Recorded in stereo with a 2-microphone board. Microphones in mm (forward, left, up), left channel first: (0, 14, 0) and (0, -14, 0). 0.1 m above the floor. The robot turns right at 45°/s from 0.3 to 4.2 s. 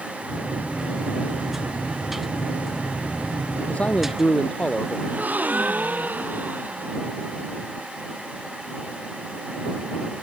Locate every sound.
3.7 s a man speaking: 55° left (ahead or behind); by 5.0 s 35° left (ahead or behind)
5.1 s a gasp: 85° right